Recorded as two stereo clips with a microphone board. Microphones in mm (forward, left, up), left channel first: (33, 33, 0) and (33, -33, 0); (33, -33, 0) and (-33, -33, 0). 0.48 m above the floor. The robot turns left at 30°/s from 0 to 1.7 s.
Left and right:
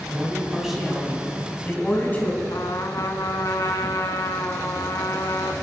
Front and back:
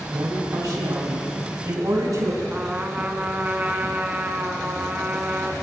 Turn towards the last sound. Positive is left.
turn(degrees=115)